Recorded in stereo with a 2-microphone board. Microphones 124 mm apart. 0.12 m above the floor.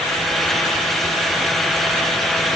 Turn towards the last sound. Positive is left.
No sound to turn to.